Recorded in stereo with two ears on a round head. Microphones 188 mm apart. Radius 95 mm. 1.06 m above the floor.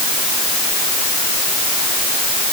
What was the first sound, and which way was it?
Only background noise.